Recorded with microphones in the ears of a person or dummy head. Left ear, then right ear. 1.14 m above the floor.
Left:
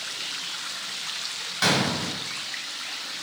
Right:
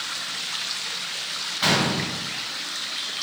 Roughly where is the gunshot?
Left.